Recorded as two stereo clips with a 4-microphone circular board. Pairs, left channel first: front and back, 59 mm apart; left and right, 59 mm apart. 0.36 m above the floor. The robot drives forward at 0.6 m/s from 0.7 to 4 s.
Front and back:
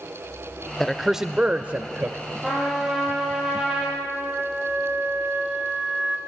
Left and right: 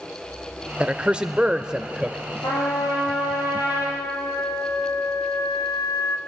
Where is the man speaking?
70° right, 0.8 m; by 2.2 s 160° right, 1.1 m.